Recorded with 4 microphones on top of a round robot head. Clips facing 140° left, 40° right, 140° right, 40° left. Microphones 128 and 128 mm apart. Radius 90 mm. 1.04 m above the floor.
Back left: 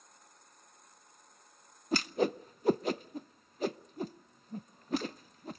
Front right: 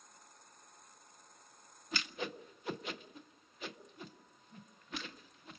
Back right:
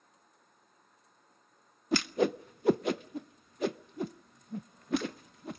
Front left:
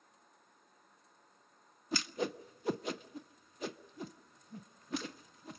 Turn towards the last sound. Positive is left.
turn(degrees=-170)